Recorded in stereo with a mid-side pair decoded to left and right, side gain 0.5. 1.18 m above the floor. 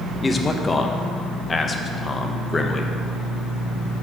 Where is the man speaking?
25° left, 0.8 m.